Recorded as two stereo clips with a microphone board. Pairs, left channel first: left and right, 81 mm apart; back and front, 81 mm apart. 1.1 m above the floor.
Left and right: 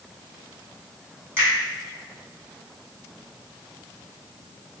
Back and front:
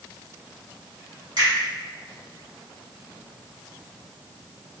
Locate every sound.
1.4 s a finger snap: 30° right, 1.6 m